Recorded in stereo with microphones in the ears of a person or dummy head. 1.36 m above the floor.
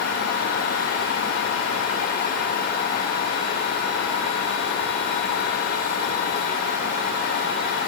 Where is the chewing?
No chewing in this recording.